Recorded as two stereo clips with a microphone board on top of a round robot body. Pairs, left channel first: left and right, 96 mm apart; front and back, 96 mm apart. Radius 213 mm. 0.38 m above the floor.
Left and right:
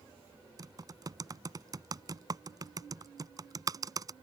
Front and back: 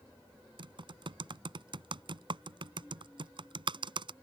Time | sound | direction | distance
0.6 | typing on a keyboard | 140° right | ?